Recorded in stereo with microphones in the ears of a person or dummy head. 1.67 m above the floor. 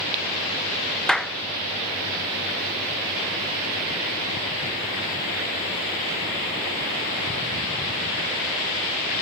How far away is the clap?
About 1.0 m.